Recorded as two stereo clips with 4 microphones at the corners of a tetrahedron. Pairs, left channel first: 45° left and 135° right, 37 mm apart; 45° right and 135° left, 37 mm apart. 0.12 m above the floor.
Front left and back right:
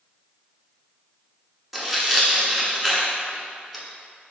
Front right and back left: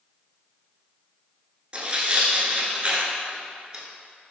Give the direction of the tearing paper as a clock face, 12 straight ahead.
7 o'clock.